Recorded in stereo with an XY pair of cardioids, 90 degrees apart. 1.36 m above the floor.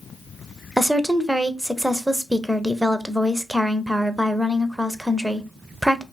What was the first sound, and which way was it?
A woman speaking, 5° right.